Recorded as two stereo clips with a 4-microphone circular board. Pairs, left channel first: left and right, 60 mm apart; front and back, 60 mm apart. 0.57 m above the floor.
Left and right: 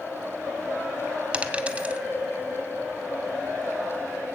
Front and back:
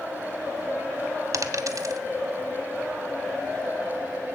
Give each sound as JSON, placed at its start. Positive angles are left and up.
{"t": 1.3, "sound": "a dropped coin", "azimuth_deg": -155, "distance_m": 0.9}